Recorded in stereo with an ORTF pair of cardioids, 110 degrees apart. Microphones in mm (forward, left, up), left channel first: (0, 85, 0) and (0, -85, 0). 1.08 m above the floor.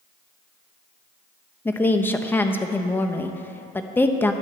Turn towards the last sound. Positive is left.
turn(degrees=10)